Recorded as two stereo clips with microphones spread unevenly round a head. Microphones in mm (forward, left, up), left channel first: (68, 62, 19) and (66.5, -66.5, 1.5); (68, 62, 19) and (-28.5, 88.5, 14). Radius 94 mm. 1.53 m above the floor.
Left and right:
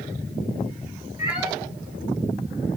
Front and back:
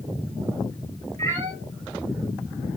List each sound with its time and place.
1.2 s a cat meowing: 165° right, 4 m